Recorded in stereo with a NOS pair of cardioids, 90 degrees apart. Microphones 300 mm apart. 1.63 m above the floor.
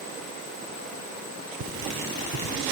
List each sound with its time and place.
1.6 s cutlery clinking: 70° right, 3 m